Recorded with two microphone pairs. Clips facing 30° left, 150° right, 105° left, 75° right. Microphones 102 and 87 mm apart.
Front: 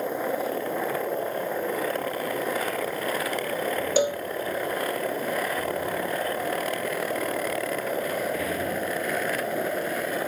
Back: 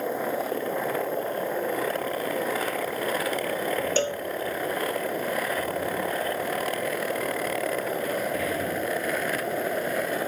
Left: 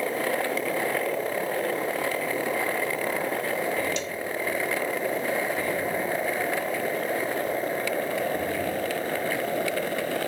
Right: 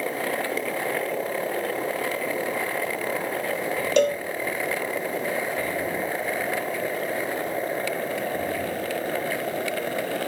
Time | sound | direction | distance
4.0 | a cowbell | 45° right | ?